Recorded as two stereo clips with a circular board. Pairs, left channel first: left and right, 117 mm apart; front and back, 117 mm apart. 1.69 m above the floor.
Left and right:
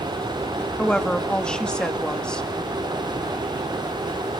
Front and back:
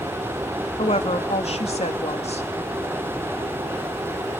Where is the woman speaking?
10° left, 2.5 m.